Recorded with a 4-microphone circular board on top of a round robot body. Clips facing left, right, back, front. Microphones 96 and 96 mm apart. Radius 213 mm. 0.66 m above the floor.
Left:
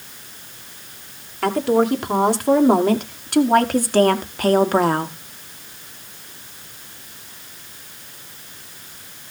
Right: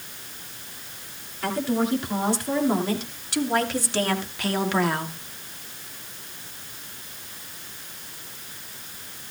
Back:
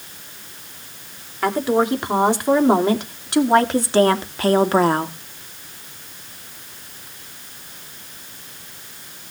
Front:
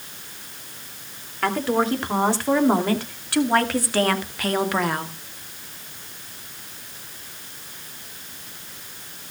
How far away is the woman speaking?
About 3.5 m.